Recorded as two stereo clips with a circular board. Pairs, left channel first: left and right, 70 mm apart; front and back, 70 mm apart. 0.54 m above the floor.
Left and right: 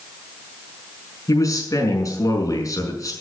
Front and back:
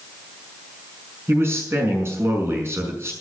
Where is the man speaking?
130° left, 5.5 m.